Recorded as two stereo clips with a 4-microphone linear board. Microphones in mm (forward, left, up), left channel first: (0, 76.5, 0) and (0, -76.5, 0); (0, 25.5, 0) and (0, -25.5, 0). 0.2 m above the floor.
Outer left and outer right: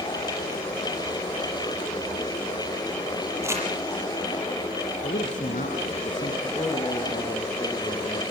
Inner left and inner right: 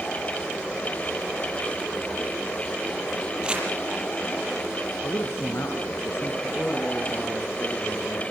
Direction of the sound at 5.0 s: 60° left (ahead or behind).